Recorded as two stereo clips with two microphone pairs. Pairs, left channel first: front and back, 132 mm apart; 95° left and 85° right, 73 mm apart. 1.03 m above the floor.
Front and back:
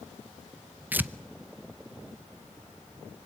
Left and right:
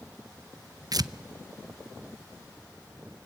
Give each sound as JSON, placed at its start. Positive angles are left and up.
{"t": 0.9, "sound": "tearing paper", "azimuth_deg": -105, "distance_m": 0.6}